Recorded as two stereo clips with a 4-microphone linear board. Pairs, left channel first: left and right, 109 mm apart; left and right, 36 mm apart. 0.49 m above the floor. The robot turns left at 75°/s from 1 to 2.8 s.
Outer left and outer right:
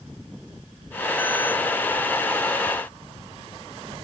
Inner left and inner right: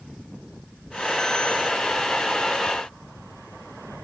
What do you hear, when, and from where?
Only background noise.